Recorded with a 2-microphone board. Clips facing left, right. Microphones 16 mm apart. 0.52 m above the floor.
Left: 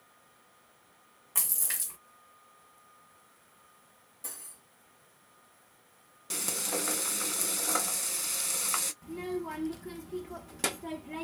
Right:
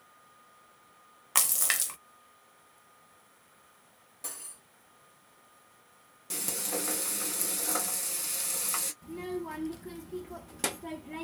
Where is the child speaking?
5° left (ahead or behind), 0.6 m.